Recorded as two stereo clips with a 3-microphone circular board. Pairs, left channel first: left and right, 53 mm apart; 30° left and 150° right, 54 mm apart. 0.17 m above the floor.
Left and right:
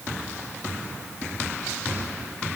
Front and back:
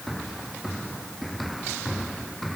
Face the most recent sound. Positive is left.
No sound to turn to.